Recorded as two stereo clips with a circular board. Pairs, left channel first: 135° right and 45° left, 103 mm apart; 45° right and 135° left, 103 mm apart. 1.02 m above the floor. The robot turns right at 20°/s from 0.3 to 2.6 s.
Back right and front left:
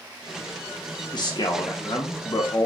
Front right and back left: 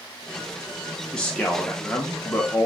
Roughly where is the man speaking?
Behind right.